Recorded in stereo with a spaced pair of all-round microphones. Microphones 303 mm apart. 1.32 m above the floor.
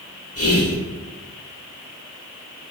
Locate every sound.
0.3 s whispering: 50° left (ahead or behind), 0.9 m